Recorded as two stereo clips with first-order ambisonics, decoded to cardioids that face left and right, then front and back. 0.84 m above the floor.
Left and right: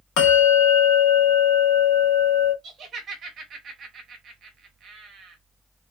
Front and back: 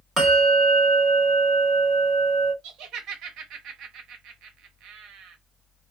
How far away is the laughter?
About 0.8 m.